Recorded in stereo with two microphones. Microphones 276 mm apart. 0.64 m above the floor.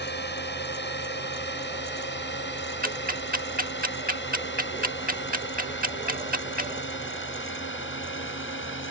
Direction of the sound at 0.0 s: 40° left (ahead or behind).